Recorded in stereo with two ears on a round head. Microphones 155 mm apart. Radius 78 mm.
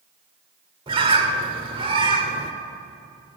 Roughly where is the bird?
Right.